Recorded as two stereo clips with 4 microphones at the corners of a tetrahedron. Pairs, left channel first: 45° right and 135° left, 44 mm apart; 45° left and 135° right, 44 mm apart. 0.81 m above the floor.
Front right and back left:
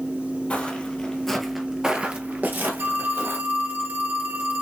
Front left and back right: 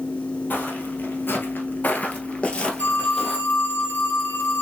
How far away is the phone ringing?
About 1.6 m.